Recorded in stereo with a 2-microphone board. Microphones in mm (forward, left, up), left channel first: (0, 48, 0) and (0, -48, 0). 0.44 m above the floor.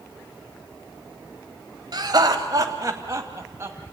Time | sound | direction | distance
1.9 | laughter | 50° right (ahead or behind) | 2.5 m